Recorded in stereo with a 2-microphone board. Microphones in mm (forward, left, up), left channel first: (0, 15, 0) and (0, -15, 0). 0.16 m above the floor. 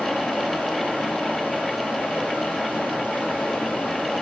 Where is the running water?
75° left (ahead or behind), 2.5 m.